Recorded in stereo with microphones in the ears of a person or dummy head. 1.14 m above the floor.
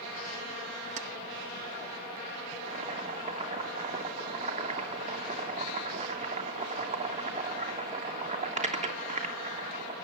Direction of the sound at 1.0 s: 35° right (ahead or behind).